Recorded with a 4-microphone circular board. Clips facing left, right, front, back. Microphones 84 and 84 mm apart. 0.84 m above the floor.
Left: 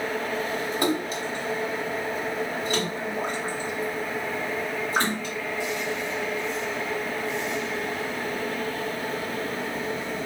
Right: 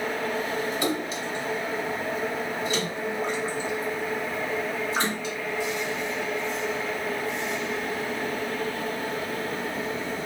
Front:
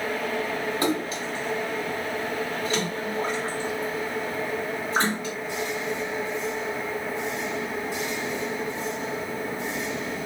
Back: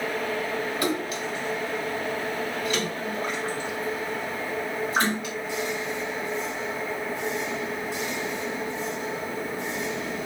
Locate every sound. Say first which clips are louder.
0.8 s a splash: left 2 dB, front 1 dB; 55° left, 1.2 m